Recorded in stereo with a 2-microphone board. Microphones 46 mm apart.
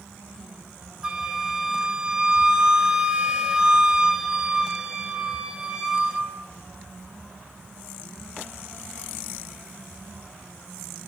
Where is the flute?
20° right (ahead or behind), 3 m.